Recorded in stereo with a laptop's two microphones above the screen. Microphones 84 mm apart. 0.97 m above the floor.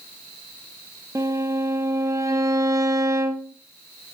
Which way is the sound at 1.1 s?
40° right (ahead or behind).